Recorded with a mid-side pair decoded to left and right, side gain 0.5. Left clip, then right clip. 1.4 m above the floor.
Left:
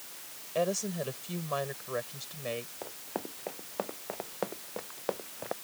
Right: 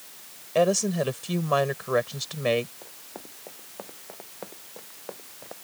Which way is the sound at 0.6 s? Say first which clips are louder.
Right 9 dB; 50° right.